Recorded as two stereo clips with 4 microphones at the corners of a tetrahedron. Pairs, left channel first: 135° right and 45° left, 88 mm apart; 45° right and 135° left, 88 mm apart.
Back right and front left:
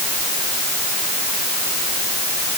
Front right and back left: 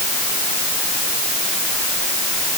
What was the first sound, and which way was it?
Only background noise.